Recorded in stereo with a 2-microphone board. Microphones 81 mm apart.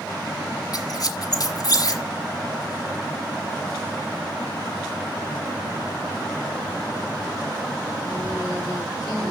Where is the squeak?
55° left (ahead or behind), 1.5 m.